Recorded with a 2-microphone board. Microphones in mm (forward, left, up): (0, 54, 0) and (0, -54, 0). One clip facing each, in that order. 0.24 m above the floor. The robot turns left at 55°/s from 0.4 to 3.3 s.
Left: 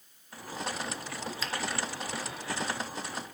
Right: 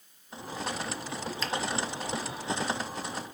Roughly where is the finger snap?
Centre.